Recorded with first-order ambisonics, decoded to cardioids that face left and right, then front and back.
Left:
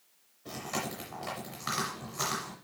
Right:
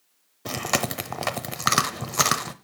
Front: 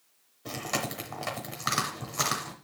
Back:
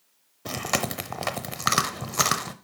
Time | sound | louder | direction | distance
0.5 | chewing | right 10 dB, back 5 dB | 115° right | 0.7 m